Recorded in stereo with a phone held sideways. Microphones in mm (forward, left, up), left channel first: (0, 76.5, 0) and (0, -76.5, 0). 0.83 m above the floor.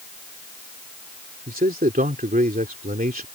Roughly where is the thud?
No thud in this recording.